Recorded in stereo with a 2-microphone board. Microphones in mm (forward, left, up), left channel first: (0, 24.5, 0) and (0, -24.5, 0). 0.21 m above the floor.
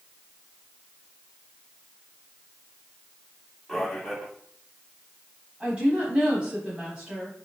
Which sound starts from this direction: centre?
A man speaking, at 3.7 s.